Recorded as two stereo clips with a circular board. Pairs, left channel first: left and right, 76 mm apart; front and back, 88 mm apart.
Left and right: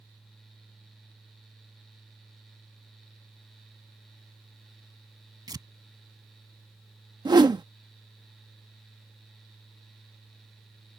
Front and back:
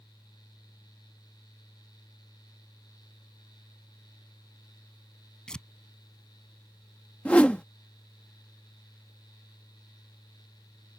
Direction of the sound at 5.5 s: 80° right.